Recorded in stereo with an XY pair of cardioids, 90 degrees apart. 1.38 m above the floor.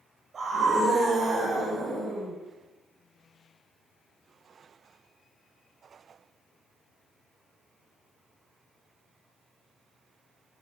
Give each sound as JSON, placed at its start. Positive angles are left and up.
{"t": 0.3, "sound": "a scream", "azimuth_deg": -55, "distance_m": 6.5}